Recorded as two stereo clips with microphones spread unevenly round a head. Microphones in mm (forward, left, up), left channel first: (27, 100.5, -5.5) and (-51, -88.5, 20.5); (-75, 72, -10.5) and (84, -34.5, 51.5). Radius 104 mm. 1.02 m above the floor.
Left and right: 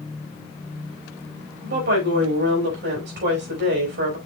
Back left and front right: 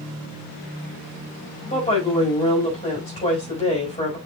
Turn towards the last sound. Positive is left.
turn(degrees=-150)